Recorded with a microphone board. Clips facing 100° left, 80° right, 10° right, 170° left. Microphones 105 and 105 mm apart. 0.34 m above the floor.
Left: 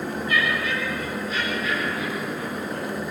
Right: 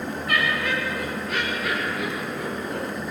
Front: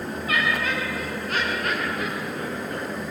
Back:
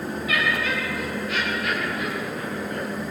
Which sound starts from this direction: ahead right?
Laughter, at 0.3 s.